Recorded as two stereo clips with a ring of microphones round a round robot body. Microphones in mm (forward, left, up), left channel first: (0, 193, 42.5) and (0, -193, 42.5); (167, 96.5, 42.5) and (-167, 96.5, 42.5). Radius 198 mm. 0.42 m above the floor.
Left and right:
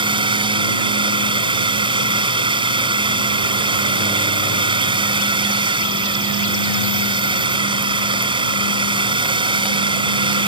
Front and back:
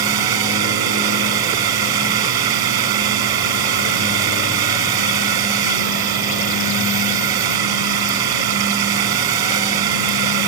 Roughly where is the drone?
Behind.